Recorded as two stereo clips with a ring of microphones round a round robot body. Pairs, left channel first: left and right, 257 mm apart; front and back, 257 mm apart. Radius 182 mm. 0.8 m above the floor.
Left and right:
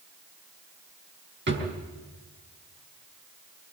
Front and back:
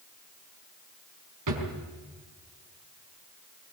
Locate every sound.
1.5 s a drawer: 140° right, 4.5 m